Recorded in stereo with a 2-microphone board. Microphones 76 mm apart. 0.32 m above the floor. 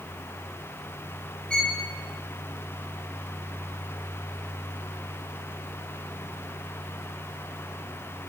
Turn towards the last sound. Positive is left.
turn(degrees=10)  # may be behind; listen again after turning